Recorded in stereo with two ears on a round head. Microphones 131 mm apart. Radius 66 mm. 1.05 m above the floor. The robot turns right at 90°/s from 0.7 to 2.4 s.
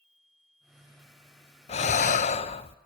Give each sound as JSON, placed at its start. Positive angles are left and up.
{"t": 1.7, "sound": "breathing", "azimuth_deg": 60, "distance_m": 0.6}